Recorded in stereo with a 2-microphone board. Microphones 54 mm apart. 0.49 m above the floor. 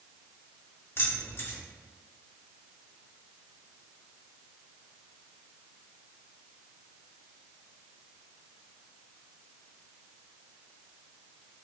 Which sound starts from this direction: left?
Keys jangling, at 1.0 s.